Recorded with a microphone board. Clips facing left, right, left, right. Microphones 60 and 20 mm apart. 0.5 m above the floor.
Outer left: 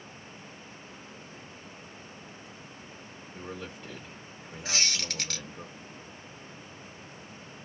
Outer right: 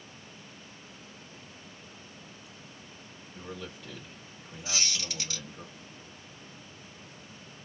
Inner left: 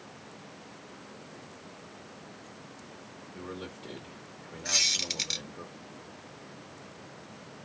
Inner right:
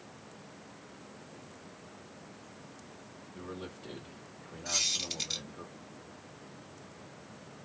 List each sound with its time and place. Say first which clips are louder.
3.4 s a man speaking: outer left 1 dB, inner left 2 dB; 30° left (ahead or behind), 1.6 m
4.7 s a squeak: outer left 3 dB, inner left 5 dB; 75° left (ahead or behind), 1.7 m